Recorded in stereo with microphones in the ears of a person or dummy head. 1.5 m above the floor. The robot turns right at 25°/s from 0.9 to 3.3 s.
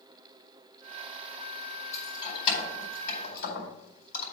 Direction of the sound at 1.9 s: 20° left (ahead or behind).